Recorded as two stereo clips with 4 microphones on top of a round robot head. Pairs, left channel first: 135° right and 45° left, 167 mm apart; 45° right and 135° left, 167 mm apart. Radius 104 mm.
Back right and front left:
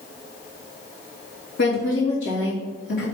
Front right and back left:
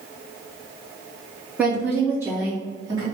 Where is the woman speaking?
140° right, 3 m; by 3.0 s 160° right, 3 m.